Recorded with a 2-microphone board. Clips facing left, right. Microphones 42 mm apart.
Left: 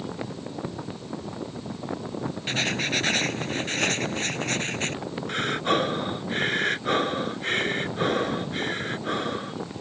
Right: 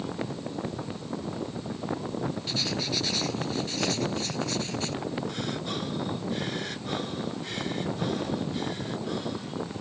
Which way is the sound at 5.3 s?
50° left (ahead or behind).